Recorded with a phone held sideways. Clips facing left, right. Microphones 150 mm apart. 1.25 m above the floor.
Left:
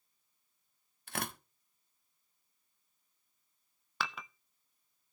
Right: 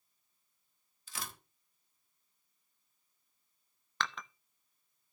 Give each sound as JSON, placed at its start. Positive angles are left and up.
{"t": 1.1, "sound": "tearing paper", "side_deg": 60, "distance_m": 1.1}
{"t": 4.0, "sound": "dishes clattering", "side_deg": 10, "distance_m": 0.5}